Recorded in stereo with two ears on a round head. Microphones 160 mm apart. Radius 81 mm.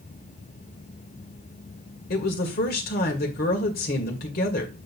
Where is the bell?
No bell in this recording.